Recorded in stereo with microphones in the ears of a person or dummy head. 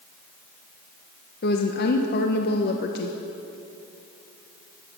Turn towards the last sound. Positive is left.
turn(degrees=50)  # may be behind; listen again after turning